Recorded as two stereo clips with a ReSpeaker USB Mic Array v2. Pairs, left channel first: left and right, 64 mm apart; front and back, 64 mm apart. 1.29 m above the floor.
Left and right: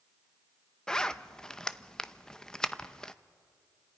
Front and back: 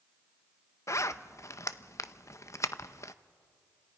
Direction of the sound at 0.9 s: 15° left.